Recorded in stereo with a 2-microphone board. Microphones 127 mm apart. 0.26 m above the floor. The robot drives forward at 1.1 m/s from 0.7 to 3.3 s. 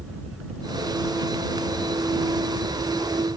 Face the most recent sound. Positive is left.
turn(degrees=-60)  # may be behind; listen again after turning